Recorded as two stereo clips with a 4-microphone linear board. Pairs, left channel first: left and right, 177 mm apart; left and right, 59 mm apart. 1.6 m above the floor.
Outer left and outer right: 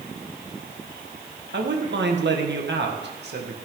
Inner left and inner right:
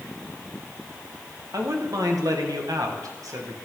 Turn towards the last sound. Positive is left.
turn(degrees=-60)  # may be behind; listen again after turning